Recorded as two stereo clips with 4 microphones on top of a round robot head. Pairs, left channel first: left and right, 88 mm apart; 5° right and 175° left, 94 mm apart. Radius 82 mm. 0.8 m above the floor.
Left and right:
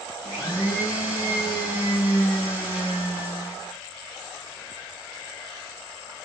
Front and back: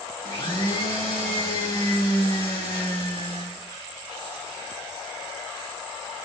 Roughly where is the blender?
Ahead.